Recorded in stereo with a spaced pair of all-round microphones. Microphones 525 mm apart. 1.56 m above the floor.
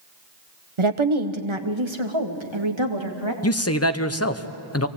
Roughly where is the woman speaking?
Right.